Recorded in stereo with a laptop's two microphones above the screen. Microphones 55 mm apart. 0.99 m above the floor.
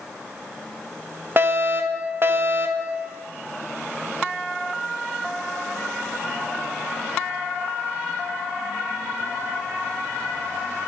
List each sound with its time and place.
1.4 s a fire alarm: 45° right (ahead or behind), 2 m